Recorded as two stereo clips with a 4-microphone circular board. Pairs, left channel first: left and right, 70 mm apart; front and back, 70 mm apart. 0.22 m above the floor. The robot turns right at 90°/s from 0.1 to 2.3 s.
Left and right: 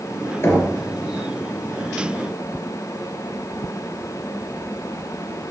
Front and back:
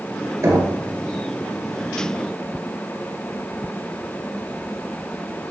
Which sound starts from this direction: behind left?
Knocking, at 0.4 s.